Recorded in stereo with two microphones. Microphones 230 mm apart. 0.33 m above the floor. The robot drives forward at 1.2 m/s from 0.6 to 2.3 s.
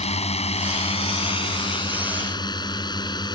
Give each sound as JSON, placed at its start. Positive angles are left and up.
{"t": 0.0, "sound": "a drone", "side_deg": 25}